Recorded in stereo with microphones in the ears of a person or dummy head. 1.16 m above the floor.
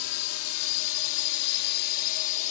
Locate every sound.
0.0 s a drone: 80° left; by 2.5 s 40° left (ahead or behind)